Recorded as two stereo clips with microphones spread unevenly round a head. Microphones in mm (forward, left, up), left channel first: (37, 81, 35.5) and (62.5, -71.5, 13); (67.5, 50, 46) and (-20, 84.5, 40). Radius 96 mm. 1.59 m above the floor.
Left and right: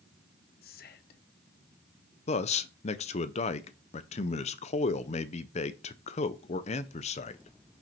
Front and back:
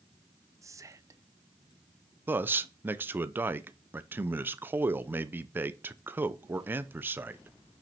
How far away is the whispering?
About 0.8 m.